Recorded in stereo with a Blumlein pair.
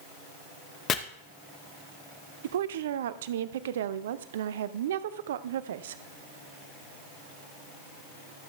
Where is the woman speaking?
60° right, 0.6 m.